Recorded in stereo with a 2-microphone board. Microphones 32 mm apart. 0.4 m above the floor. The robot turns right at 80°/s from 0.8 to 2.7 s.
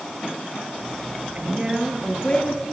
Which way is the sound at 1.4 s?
45° right.